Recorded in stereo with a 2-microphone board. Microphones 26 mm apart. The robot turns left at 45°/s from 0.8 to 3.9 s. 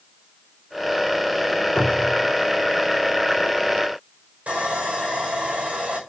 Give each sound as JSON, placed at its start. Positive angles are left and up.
{"t": 1.8, "sound": "a cupboard door", "side_deg": 70, "distance_m": 4.0}
{"t": 4.5, "sound": "sawing", "side_deg": -60, "distance_m": 5.5}